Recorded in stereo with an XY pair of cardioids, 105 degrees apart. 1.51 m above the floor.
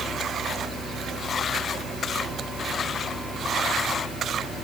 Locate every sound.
Only background noise.